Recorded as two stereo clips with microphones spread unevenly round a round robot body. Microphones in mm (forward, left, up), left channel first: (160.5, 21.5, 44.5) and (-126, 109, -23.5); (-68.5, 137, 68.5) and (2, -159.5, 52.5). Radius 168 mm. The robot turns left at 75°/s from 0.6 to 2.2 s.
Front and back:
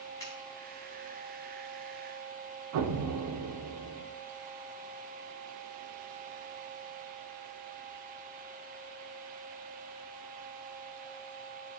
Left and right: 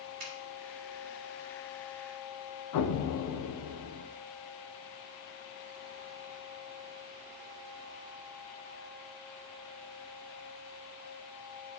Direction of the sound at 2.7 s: 140° left.